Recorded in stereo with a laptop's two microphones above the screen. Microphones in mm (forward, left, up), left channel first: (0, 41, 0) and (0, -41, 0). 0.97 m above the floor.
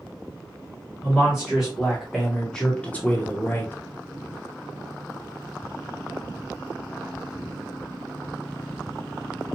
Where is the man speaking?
10° right (ahead or behind), 1.7 m; by 3.7 s 20° left (ahead or behind), 1.2 m.